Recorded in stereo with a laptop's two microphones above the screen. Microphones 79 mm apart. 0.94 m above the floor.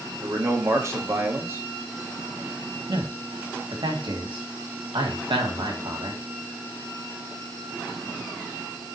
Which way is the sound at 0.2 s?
35° right (ahead or behind).